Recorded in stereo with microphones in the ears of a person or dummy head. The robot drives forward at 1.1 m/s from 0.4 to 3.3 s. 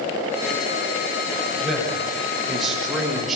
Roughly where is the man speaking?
Centre.